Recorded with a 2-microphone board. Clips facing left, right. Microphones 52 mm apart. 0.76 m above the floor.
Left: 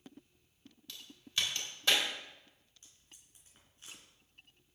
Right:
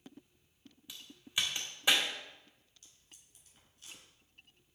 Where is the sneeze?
I don't hear a sneeze.